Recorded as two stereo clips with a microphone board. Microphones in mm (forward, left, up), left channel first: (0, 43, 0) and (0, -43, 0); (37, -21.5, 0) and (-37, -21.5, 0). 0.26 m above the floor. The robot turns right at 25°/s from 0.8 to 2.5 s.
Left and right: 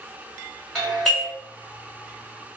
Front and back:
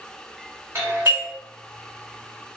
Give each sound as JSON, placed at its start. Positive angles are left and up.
{"t": 0.8, "sound": "a doorbell", "azimuth_deg": 170, "distance_m": 1.7}